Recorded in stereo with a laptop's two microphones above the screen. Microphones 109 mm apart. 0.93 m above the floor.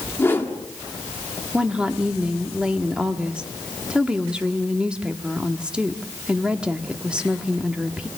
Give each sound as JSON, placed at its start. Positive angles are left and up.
{"t": 0.2, "sound": "a whoosh", "side_deg": 20, "distance_m": 1.6}
{"t": 1.5, "sound": "a woman speaking", "side_deg": -10, "distance_m": 1.5}